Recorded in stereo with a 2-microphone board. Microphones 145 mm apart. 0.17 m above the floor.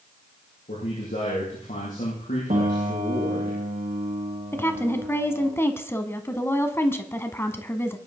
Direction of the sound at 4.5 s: 20° left (ahead or behind).